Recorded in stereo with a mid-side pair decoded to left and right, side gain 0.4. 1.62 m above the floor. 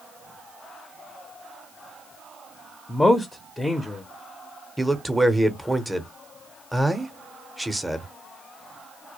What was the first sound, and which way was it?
A man speaking, 15° left.